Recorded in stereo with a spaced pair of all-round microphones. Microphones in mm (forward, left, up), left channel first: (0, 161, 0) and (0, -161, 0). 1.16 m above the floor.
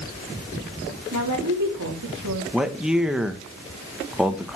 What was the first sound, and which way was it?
A woman speaking, 75° right (ahead or behind).